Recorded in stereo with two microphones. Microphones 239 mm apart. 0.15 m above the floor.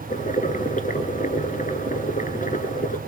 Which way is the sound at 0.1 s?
35° left (ahead or behind).